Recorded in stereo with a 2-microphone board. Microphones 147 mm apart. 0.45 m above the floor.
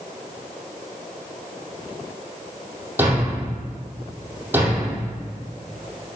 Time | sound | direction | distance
3.0 | a thud | 15° right (ahead or behind) | 5.5 m